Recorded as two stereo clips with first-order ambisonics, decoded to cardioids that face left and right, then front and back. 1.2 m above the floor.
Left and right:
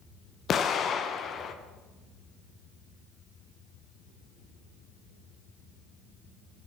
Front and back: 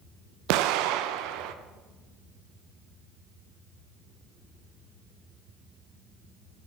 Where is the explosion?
155° left, 0.6 m.